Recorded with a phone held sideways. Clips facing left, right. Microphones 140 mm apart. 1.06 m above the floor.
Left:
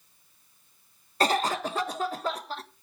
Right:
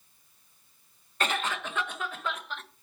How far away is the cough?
About 1.2 m.